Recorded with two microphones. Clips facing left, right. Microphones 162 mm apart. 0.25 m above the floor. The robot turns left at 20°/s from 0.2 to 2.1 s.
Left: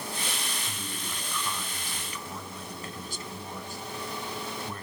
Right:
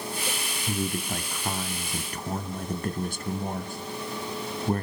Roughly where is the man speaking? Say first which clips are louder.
Right 10 dB; right.